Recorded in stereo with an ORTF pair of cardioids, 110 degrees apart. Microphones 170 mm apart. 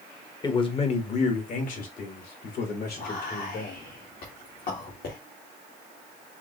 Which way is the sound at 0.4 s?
25° left.